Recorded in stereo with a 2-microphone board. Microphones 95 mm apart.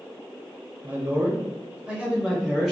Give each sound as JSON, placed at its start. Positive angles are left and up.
{"t": 0.8, "sound": "a man speaking", "side_deg": -25, "distance_m": 1.1}